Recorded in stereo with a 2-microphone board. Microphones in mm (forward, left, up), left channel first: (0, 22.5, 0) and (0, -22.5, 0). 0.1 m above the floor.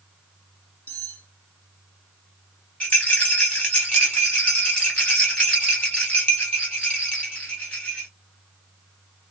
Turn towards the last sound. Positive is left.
turn(degrees=25)  # may be behind; listen again after turning